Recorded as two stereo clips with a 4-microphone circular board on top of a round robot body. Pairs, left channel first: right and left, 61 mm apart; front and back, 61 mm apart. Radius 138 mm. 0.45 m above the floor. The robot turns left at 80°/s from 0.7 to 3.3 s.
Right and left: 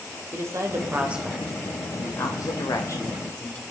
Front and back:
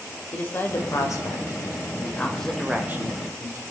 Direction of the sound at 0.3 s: 55° left.